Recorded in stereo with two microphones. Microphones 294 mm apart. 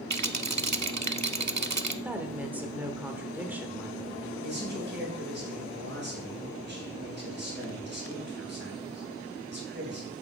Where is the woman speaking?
5° right (ahead or behind), 1.0 m.